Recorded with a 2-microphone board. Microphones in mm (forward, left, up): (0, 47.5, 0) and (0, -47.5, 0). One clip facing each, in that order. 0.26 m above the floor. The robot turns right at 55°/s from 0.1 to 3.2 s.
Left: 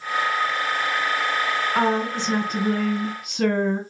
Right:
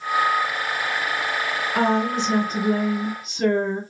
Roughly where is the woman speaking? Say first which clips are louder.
Right 3 dB; ahead.